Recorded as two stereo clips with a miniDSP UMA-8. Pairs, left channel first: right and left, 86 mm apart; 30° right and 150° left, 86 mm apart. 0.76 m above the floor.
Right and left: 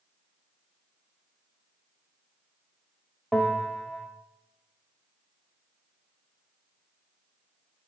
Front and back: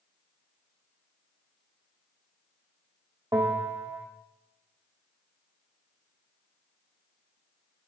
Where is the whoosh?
No whoosh in this recording.